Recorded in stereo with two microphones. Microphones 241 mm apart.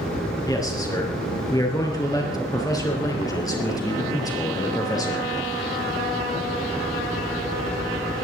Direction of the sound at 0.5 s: 15° left (ahead or behind).